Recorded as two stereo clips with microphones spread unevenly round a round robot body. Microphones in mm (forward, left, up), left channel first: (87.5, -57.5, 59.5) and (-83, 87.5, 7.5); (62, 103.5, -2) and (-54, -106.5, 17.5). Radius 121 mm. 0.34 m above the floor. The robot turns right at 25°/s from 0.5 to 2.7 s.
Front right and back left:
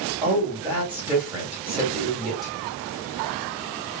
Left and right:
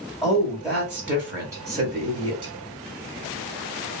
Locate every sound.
0.2 s a woman speaking: 145° left, 1.3 m; by 2.5 s 165° right, 1.3 m